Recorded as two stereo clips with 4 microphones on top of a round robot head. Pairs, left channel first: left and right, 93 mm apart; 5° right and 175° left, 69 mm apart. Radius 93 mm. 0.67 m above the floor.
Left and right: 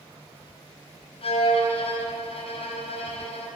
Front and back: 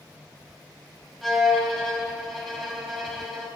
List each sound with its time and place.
1.2 s a violin: 85° left, 1.6 m